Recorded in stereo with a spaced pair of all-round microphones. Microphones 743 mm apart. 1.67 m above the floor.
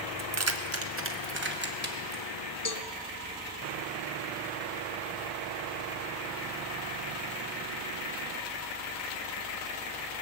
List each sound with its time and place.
0.2 s keys jangling: 25° right (ahead or behind), 0.6 m; by 2.2 s 10° right (ahead or behind), 1.8 m
2.6 s a cowbell: 25° left (ahead or behind), 0.6 m